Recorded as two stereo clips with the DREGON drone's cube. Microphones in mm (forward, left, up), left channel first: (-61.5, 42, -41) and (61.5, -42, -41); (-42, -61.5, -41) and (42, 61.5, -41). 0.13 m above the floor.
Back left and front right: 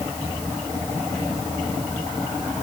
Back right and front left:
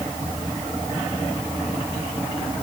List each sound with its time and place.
Only background noise.